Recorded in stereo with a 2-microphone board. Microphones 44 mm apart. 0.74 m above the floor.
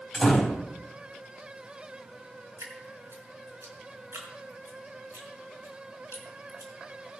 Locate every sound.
0.1 s a door slam: 5° right (ahead or behind), 4 m
2.6 s dripping: 65° right (ahead or behind), 4.5 m